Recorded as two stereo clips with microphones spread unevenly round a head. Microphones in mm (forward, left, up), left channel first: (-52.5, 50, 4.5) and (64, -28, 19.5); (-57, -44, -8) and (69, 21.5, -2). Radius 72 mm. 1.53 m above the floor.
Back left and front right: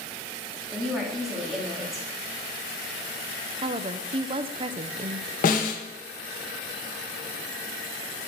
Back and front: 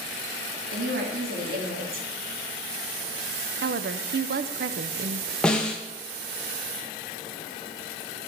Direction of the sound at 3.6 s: 15° left.